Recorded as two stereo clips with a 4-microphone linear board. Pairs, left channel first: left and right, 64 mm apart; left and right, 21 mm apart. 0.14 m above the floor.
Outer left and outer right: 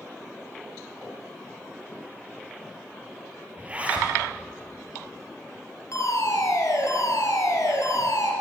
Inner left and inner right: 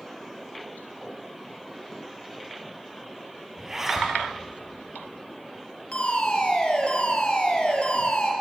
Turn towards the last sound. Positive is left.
turn(degrees=55)  # may be behind; listen again after turning